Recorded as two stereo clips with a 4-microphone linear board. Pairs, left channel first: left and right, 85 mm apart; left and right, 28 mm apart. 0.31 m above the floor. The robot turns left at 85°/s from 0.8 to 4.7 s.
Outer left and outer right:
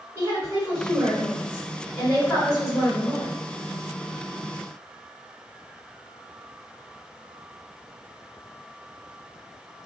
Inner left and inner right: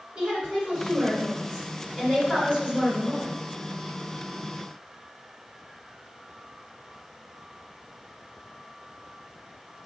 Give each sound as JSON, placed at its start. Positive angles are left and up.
{"t": 0.1, "sound": "a woman speaking", "side_deg": -25, "distance_m": 1.5}